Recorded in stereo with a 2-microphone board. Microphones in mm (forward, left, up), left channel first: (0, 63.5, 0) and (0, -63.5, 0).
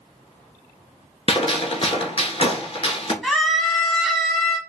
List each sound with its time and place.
1.3 s a gunshot: 45° left (ahead or behind), 0.7 m
3.2 s a scream: centre (ahead or behind), 1.2 m